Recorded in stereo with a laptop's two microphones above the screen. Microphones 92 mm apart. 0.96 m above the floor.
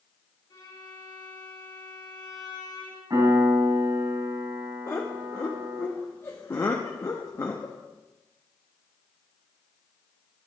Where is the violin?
45° left (ahead or behind), 1.9 m.